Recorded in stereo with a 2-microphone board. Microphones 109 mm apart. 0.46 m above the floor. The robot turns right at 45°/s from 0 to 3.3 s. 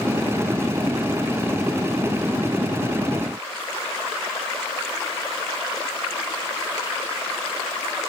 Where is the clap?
No clap in this recording.